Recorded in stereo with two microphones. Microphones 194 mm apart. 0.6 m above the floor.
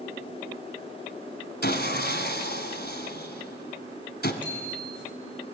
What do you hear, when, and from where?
1.6 s sawing: 55° left (ahead or behind), 1.5 m
4.4 s a bicycle bell: 70° right (ahead or behind), 6 m